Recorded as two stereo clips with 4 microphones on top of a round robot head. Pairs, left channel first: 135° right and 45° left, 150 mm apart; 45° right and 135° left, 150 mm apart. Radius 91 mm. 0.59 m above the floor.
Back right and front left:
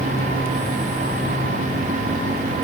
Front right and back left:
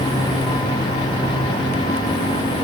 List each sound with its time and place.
Only background noise.